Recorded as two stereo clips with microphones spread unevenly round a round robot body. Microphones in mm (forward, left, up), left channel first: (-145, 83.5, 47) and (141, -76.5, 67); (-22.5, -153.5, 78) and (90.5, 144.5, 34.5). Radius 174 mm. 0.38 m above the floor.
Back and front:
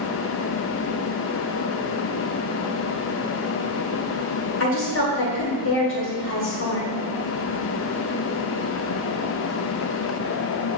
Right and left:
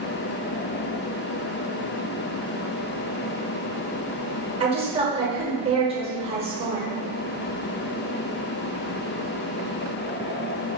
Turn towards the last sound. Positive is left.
turn(degrees=125)